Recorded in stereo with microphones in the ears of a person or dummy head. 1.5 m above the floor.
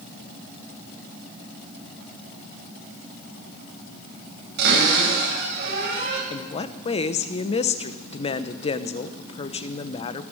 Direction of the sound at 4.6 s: 60° right (ahead or behind).